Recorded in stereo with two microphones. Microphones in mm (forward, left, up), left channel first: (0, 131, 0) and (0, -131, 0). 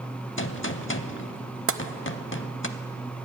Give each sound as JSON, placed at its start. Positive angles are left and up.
{"t": 0.4, "sound": "a gunshot", "side_deg": 50, "distance_m": 0.6}
{"t": 1.7, "sound": "tapping", "side_deg": -55, "distance_m": 0.5}